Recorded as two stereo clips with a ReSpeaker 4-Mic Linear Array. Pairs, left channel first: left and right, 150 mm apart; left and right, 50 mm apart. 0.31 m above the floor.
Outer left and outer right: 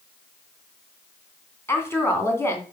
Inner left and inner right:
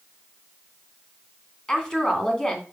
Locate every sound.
1.7 s a woman speaking: 15° left (ahead or behind), 2.5 m